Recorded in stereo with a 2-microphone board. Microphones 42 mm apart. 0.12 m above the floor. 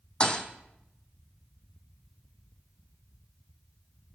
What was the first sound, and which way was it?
A thud, 25° left (ahead or behind).